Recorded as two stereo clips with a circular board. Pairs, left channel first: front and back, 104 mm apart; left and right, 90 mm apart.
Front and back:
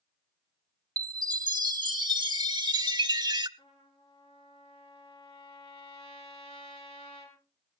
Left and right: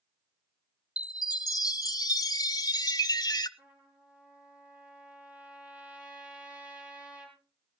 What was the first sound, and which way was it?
A chime, 135° left.